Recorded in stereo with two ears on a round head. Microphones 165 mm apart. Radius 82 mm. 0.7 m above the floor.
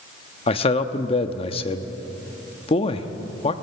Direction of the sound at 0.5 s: 35° left (ahead or behind).